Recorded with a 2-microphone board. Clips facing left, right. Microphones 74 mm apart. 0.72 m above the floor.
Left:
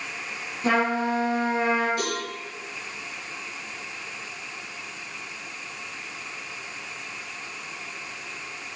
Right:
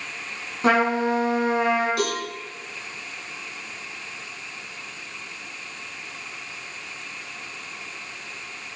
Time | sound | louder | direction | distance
0.6 | a trumpet | right 3 dB | 75° right (ahead or behind) | 5 m
2.0 | a cowbell | right 3 dB | 80° right | 4 m